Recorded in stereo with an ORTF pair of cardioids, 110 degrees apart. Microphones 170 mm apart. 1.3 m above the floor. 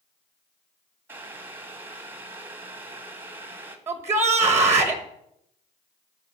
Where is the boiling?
15° right, 1.4 m.